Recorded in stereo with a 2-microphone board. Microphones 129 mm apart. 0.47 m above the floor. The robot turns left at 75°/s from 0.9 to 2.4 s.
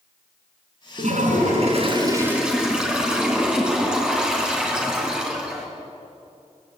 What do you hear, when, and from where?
1.0 s a toilet flushing: 65° right, 4 m; by 5.7 s 175° right, 4 m